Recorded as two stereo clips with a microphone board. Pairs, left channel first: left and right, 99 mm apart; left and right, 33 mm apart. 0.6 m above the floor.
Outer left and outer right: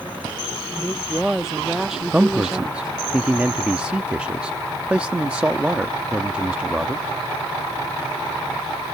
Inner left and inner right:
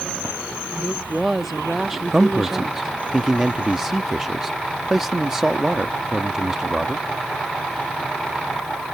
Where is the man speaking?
10° right (ahead or behind).